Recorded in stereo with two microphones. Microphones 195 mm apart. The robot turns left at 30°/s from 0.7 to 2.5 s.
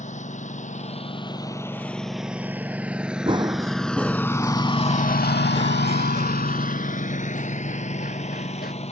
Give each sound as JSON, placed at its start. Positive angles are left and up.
{"t": 0.0, "sound": "a lawn mower", "side_deg": 40}
{"t": 3.3, "sound": "running footsteps", "side_deg": -25}